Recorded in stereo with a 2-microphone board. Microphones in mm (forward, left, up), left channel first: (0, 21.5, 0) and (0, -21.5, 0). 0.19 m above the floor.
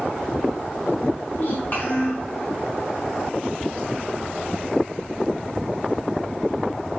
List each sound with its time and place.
1.3 s a child speaking: 40° left (ahead or behind), 1.5 m